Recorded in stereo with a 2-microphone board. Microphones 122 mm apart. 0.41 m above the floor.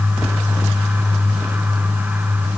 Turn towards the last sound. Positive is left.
No sound to turn to.